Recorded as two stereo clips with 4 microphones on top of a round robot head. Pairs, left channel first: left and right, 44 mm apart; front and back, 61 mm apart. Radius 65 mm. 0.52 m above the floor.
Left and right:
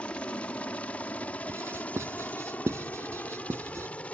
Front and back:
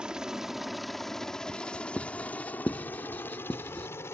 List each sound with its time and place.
0.0 s a helicopter: 120° left; by 4.1 s 35° left
1.5 s writing: 70° right